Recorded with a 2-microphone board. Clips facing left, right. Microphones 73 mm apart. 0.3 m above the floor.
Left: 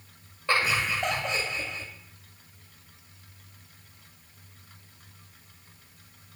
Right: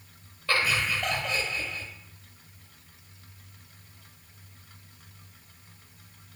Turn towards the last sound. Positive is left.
turn(degrees=25)  # may be behind; listen again after turning